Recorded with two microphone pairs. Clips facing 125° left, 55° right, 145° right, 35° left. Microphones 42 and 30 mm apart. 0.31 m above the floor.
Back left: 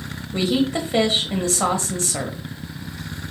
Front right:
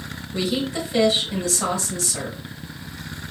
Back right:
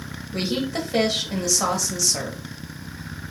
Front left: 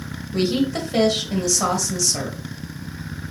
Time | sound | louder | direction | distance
0.3 | a woman speaking | back left 4 dB, front left 4 dB | 130° left | 1.0 m